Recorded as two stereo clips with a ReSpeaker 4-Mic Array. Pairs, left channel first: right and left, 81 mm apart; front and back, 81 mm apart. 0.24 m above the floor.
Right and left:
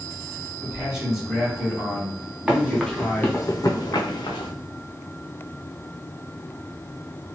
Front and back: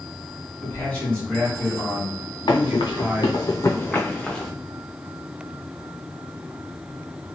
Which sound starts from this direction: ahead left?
A man speaking, at 0.6 s.